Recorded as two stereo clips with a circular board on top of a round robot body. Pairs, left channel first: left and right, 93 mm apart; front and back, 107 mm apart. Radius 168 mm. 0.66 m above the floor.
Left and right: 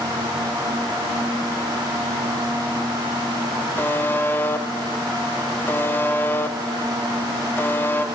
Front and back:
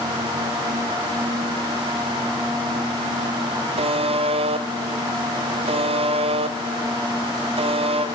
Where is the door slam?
I don't hear a door slam.